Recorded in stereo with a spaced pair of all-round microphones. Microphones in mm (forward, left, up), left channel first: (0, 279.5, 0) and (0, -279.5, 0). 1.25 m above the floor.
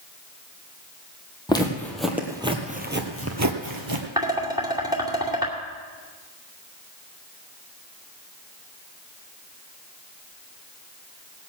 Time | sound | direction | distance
1.5 | footsteps | 10° left (ahead or behind) | 2 m
4.2 | dishes clattering | 5° right (ahead or behind) | 2.5 m